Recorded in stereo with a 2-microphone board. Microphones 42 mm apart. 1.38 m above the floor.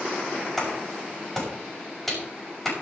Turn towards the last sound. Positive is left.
turn(degrees=10)  # may be behind; listen again after turning